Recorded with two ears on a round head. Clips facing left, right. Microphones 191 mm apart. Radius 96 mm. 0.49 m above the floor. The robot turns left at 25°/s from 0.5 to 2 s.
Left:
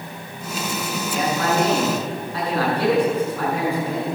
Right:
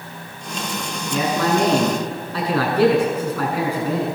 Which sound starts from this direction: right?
A man speaking, at 1.1 s.